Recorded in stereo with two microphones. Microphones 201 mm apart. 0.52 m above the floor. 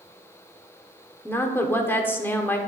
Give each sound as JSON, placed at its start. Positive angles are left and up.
{"t": 1.2, "sound": "a woman speaking", "side_deg": 10, "distance_m": 0.9}